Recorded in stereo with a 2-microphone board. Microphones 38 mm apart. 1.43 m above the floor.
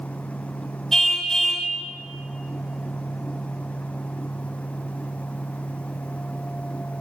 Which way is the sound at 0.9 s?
10° left (ahead or behind).